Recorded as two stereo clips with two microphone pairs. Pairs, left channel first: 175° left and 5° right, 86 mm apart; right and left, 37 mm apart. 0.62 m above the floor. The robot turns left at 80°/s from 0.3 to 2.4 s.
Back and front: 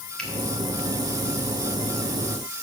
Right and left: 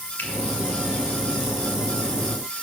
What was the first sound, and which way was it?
A finger snap, 105° right.